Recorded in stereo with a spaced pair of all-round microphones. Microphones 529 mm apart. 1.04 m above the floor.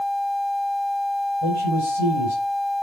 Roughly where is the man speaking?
Right.